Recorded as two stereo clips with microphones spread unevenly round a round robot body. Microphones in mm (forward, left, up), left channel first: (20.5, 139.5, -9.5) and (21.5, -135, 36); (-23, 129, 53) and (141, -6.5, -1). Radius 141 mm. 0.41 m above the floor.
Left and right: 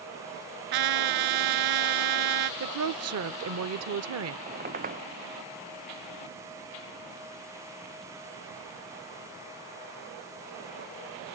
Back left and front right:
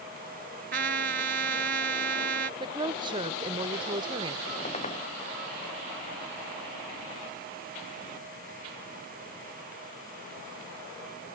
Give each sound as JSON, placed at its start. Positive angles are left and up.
{"t": 0.7, "sound": "a trumpet", "azimuth_deg": -95}
{"t": 2.6, "sound": "a woman speaking", "azimuth_deg": -80}
{"t": 4.5, "sound": "a squeak", "azimuth_deg": -150}